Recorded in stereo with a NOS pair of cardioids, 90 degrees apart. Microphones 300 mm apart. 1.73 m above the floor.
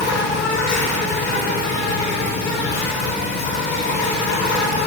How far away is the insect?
About 1.0 m.